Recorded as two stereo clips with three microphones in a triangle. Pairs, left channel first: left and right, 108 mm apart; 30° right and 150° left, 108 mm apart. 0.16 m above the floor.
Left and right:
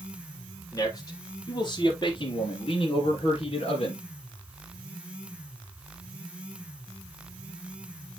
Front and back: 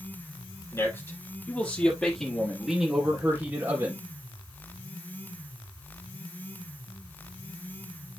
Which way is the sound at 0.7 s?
30° left.